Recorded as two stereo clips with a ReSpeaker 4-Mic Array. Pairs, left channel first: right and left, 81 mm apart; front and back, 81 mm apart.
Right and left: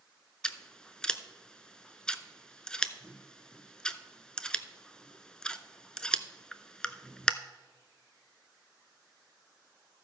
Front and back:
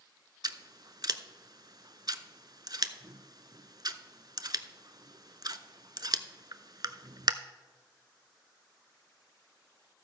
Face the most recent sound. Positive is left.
turn(degrees=-170)